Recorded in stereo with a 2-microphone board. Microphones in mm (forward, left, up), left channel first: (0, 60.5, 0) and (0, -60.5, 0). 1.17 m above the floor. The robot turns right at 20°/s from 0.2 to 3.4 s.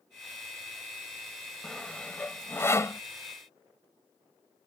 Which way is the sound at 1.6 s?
5° left (ahead or behind).